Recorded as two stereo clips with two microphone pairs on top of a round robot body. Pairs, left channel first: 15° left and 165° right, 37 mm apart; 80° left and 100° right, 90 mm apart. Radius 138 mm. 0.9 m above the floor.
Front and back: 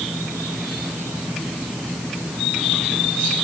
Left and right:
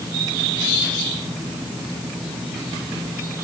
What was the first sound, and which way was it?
Only background noise.